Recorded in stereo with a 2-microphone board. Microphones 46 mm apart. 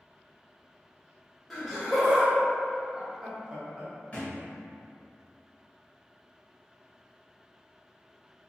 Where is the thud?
30° left (ahead or behind), 1.1 m.